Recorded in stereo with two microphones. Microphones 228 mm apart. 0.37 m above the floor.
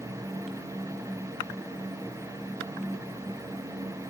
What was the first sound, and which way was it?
Only background noise.